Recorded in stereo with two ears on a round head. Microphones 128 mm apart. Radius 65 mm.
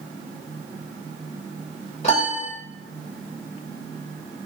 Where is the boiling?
No boiling in this recording.